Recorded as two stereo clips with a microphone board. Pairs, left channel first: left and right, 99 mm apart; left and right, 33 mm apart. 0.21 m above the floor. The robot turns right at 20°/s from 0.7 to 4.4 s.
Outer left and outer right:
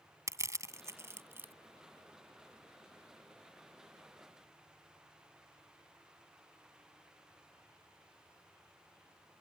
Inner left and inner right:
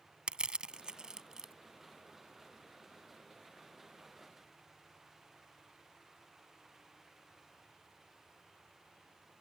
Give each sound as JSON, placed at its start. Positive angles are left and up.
{"t": 0.3, "sound": "crushing", "side_deg": -30}